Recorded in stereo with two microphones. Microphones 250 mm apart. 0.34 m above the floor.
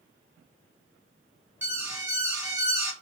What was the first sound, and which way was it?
An alarm, 10° right (ahead or behind).